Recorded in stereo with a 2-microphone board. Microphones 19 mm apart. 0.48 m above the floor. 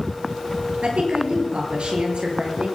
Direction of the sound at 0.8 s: 80° right.